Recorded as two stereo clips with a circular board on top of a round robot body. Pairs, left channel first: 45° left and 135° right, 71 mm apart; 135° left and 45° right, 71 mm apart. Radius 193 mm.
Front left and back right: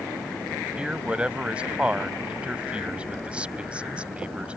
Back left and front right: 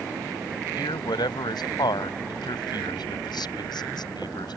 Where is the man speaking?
150° left.